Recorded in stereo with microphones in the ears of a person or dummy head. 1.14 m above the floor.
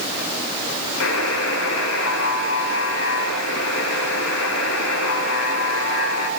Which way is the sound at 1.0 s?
80° left.